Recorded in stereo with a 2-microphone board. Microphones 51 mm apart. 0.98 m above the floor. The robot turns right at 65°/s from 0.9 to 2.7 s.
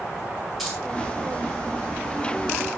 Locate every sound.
0.6 s keys jangling: 5° right (ahead or behind), 5 m